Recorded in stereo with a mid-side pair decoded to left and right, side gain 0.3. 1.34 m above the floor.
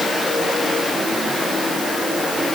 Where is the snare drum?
No snare drum in this recording.